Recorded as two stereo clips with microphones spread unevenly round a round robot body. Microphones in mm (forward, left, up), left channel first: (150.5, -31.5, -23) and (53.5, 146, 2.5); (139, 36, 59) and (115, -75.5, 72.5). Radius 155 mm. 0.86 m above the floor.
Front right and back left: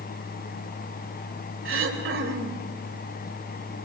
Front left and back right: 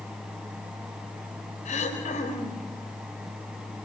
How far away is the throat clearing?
About 4 m.